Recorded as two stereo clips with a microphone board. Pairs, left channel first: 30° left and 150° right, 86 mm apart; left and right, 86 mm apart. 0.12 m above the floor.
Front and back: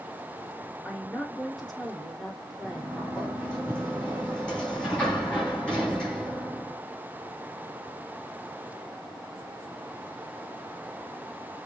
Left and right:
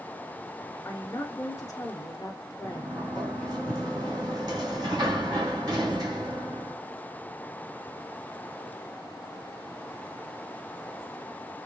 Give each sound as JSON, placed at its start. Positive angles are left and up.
{"t": 0.8, "sound": "a woman speaking", "azimuth_deg": 110, "distance_m": 1.7}
{"t": 2.6, "sound": "a sliding door", "azimuth_deg": -50, "distance_m": 3.0}